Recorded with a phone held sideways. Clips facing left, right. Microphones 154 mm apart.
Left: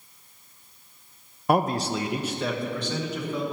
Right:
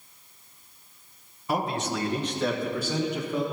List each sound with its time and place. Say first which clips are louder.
1.5 s a man speaking: left 5 dB; 60° left (ahead or behind), 0.8 m; by 3.4 s 15° right (ahead or behind), 2.5 m